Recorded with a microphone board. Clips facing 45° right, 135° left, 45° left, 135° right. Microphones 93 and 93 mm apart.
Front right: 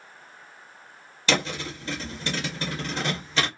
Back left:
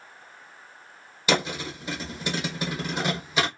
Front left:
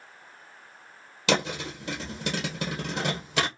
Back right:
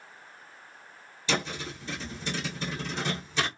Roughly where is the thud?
Ahead left.